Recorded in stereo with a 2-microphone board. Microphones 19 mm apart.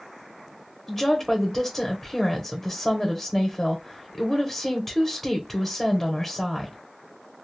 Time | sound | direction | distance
0.9 | a woman speaking | 5° left (ahead or behind) | 1.0 m